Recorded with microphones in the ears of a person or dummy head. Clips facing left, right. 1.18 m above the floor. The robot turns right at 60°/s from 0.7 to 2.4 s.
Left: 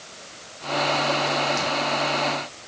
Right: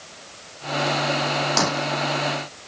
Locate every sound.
1.6 s breaking glass: 80° right; by 1.9 s 85° right